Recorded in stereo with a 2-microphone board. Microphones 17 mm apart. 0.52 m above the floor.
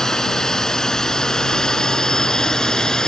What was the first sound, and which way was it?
A drone, 35° left (ahead or behind).